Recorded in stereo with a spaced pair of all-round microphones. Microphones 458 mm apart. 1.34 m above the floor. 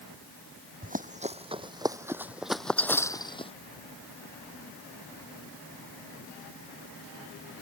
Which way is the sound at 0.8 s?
20° right (ahead or behind).